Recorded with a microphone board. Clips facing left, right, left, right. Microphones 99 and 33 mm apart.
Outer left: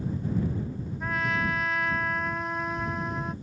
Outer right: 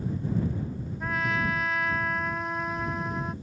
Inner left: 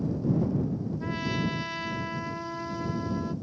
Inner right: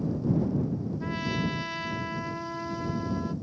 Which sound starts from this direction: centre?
A trumpet, at 1.0 s.